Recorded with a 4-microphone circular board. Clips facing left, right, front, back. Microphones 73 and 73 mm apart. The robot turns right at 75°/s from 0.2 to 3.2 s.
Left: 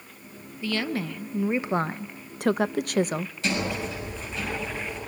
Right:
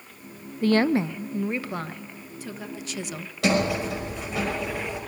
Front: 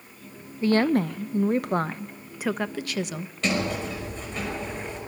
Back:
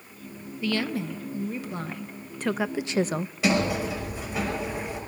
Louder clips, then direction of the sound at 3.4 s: Right 7 dB, back 2 dB; 100° right.